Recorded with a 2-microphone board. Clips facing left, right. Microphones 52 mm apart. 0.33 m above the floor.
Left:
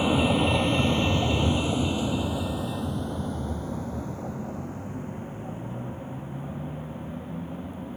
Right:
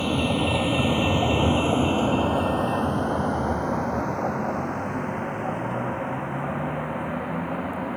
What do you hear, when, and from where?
0.0 s a vehicle: 10° left (ahead or behind); by 8.0 s 85° right